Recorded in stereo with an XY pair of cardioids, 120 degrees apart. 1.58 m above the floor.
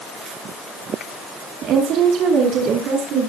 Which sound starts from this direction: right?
A woman speaking, at 1.6 s.